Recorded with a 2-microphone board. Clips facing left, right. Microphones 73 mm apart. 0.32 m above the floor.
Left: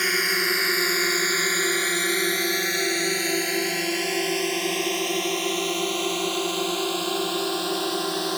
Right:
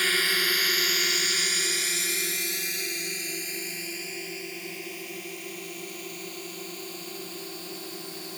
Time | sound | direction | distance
0.0 | a drone | 15° left (ahead or behind) | ?